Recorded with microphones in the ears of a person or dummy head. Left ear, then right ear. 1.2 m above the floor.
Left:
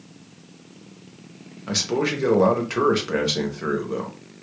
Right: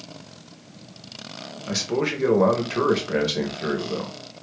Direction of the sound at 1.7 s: 5° right (ahead or behind).